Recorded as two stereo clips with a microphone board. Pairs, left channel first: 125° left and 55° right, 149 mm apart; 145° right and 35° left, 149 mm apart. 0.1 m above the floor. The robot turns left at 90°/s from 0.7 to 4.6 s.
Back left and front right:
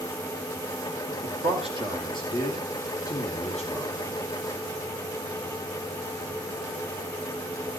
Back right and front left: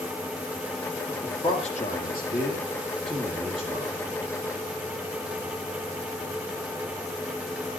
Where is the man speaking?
50° right, 4.5 m; by 4.0 s 50° left, 4.5 m.